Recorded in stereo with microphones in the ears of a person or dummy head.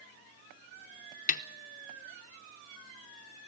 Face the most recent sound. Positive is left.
turn(degrees=40)  # may be behind; listen again after turning